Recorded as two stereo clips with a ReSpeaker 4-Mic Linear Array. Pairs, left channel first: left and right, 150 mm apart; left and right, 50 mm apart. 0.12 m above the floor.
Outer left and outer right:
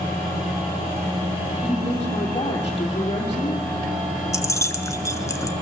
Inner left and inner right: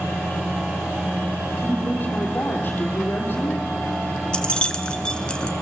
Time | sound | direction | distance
1.6 | a woman speaking | 35° left (ahead or behind) | 4.5 m
4.3 | keys jangling | 20° left (ahead or behind) | 0.8 m